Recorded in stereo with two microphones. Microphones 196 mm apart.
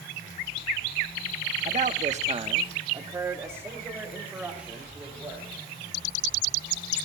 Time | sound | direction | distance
1.6 | a man speaking | 35° right (ahead or behind) | 0.9 m